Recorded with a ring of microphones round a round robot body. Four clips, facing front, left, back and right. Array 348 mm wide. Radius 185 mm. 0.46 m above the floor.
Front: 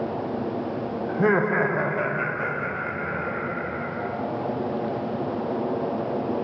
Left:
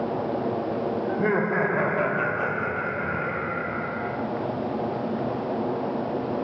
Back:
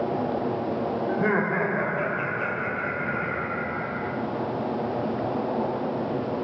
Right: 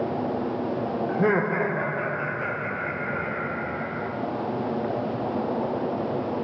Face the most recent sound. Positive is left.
turn(degrees=90)